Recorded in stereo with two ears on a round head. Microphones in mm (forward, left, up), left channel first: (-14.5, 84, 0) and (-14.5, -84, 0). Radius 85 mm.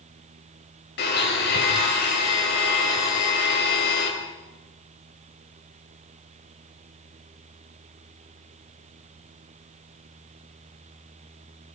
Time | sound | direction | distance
1.0 | a blender | 65° left (ahead or behind) | 6 m